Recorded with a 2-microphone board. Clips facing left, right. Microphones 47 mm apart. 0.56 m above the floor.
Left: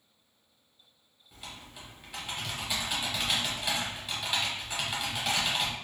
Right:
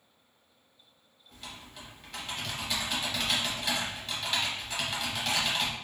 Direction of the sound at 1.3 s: 15° left (ahead or behind).